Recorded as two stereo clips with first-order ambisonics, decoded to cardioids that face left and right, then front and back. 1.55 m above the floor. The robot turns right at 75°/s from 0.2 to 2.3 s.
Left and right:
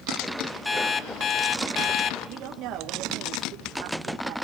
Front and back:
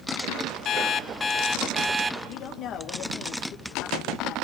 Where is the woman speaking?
50° right, 1.9 m.